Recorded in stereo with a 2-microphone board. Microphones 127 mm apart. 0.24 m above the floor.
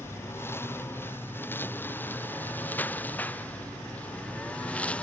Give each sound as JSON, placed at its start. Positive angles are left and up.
{"t": 0.0, "sound": "a lawn mower", "side_deg": 20}